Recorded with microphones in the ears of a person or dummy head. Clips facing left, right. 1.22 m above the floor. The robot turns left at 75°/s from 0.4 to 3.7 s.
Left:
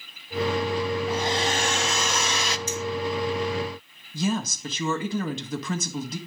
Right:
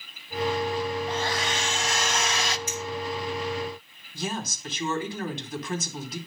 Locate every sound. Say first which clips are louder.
1.1 s a hair dryer: left 3 dB; 175° left, 0.5 m; by 2.6 s 65° left, 0.5 m
2.7 s a clink: left 4 dB; 85° left, 3 m
4.1 s a woman speaking: left 6 dB; 65° left (ahead or behind), 1.6 m